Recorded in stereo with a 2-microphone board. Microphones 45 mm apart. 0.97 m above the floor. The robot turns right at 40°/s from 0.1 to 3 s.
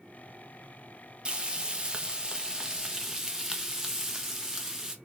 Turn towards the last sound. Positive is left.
turn(degrees=-10)  # may be behind; listen again after turning